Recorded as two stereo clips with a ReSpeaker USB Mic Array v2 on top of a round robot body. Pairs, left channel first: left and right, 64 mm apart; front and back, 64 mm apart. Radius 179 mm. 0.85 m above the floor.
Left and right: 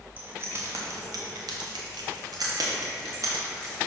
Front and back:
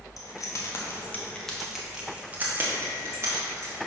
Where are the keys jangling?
30° right, 0.9 m; by 3.8 s 135° right, 1.5 m.